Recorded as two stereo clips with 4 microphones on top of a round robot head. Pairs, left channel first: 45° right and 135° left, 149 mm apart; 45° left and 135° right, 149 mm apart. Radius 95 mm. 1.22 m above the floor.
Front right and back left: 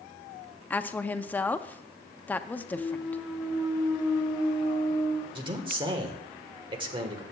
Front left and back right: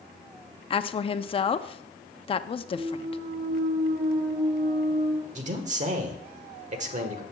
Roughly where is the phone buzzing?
I don't hear a phone buzzing.